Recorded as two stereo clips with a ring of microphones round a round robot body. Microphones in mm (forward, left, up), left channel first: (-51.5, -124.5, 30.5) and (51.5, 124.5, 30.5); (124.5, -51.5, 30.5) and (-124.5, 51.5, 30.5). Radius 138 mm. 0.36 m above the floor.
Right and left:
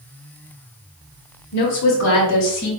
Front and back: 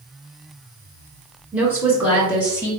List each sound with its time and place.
1.5 s a woman speaking: 120° right, 1.2 m